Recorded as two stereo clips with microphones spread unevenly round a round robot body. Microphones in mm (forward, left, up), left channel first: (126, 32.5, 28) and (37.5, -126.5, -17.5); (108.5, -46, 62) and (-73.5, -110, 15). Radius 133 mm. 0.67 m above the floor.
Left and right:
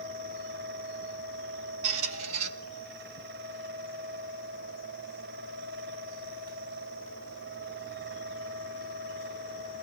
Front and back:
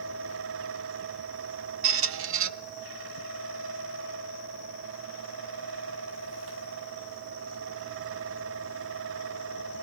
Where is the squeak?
145° right, 0.7 m.